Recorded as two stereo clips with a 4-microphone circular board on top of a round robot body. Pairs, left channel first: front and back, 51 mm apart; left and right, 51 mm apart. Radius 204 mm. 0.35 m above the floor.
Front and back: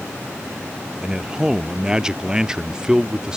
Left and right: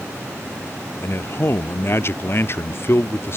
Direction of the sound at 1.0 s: 110° left.